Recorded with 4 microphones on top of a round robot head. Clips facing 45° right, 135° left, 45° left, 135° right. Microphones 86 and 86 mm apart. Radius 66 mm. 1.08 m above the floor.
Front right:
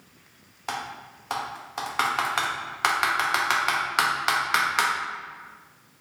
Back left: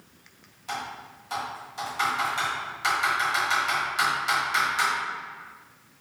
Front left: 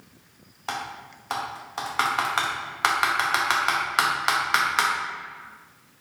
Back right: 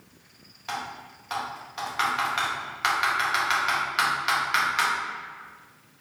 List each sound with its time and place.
0.7 s typing on a keyboard: 10° right, 0.6 m